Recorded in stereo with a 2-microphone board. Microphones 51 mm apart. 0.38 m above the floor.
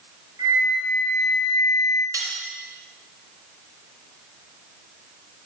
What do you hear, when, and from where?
0.4 s a flute: 60° right (ahead or behind), 3.5 m
2.1 s cutlery clinking: 75° right (ahead or behind), 3 m